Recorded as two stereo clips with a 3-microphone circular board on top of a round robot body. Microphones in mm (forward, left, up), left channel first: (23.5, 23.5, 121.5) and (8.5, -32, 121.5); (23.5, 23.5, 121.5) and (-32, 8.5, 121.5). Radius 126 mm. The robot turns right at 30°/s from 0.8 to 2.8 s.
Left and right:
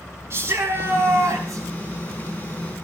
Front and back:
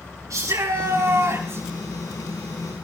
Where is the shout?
145° right, 7 m; by 1.6 s 120° right, 7 m.